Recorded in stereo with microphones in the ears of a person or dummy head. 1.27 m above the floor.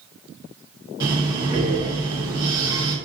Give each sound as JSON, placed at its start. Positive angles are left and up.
{"t": 1.0, "sound": "breathing", "side_deg": -15, "distance_m": 0.9}